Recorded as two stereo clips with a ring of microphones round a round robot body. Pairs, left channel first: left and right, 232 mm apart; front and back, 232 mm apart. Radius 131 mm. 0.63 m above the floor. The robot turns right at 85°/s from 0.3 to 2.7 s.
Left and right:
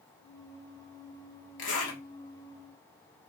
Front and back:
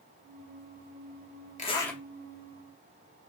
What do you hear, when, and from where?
1.6 s a zipper: 55° left, 1.1 m; by 2.0 s 90° left, 1.1 m